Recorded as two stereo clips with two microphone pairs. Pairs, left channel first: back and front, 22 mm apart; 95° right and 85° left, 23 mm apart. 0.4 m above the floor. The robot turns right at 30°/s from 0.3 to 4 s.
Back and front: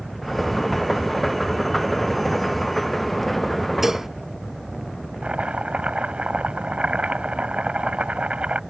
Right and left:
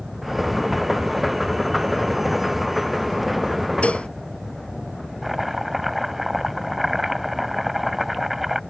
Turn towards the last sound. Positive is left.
turn(degrees=5)